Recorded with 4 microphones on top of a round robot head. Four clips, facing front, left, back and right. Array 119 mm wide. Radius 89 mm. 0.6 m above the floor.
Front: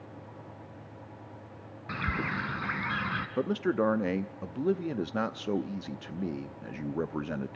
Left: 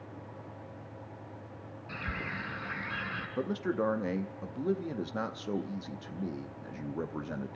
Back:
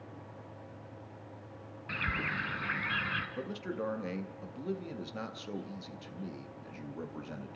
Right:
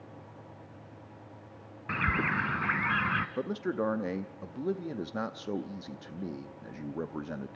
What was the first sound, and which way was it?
A bird, 65° right.